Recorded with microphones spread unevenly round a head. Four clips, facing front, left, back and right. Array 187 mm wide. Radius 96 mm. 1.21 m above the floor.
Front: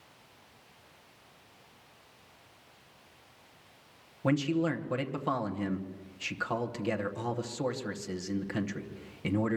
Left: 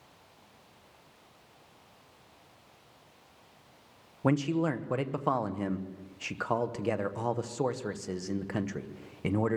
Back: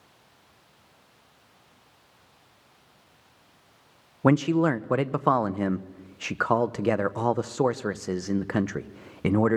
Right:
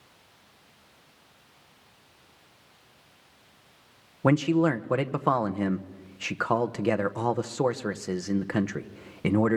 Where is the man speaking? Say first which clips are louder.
Right 6 dB, back 7 dB; 150° right, 1.0 m.